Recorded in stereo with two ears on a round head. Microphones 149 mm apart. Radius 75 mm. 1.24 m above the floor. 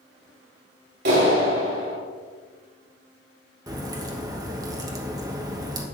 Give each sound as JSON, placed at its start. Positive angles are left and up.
{"t": 1.1, "sound": "a clap", "side_deg": -65, "distance_m": 3.5}
{"t": 3.7, "sound": "a crack", "side_deg": -20, "distance_m": 1.1}